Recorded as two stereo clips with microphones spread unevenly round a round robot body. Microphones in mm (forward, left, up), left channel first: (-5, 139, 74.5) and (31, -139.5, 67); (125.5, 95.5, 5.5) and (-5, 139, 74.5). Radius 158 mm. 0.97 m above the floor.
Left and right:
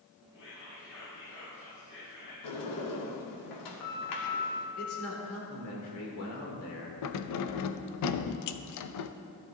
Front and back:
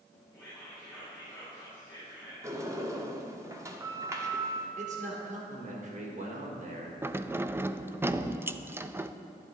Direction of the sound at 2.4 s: 95° left.